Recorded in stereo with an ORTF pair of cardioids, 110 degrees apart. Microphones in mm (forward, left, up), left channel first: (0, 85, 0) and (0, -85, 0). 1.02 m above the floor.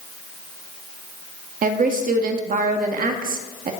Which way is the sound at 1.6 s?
55° right.